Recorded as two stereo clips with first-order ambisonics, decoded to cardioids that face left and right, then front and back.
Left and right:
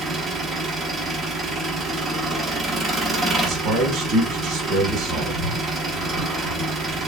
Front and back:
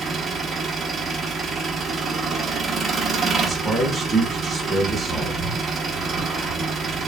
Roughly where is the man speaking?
Right.